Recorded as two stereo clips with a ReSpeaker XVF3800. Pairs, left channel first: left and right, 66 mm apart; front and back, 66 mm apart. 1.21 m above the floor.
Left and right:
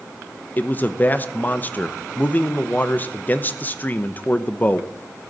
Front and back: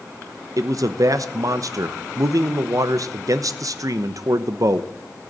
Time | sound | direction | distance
0.6 | a man speaking | 150° left | 0.8 m